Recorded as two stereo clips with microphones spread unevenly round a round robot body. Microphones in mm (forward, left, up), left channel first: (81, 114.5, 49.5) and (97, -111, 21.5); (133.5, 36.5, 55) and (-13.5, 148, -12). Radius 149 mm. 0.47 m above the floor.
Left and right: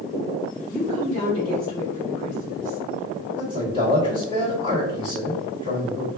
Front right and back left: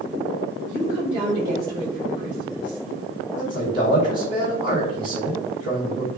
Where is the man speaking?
160° left, 1.8 m.